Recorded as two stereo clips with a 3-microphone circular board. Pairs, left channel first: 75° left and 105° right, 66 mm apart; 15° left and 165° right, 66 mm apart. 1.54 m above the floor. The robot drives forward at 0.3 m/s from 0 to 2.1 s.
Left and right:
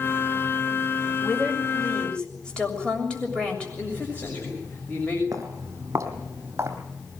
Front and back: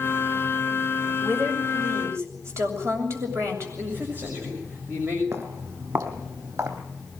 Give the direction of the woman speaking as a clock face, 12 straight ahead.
7 o'clock.